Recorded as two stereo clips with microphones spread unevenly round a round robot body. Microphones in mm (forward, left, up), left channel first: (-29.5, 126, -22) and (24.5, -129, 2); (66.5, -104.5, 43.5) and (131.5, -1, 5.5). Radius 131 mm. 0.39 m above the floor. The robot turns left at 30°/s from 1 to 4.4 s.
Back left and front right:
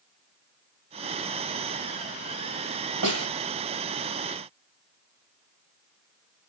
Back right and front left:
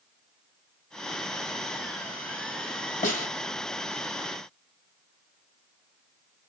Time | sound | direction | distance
3.0 | a snare drum | 105° right | 1.9 m